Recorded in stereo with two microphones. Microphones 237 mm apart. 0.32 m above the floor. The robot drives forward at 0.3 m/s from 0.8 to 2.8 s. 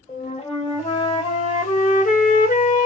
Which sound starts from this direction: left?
A flute, at 0.1 s.